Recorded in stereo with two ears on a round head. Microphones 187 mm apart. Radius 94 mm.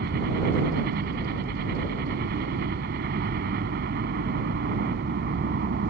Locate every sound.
0.0 s a helicopter: 50° right (ahead or behind)